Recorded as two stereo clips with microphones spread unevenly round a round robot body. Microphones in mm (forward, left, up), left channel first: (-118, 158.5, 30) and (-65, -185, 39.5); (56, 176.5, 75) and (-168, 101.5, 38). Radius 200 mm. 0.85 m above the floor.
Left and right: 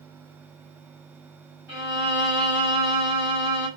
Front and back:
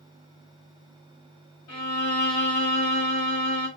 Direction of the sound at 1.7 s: 5° left.